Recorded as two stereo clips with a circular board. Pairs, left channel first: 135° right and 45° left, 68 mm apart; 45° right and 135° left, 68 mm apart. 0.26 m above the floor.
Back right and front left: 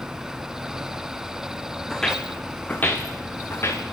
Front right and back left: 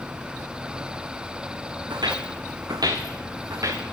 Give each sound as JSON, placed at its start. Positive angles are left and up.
{"t": 1.9, "sound": "footsteps", "azimuth_deg": 140, "distance_m": 1.5}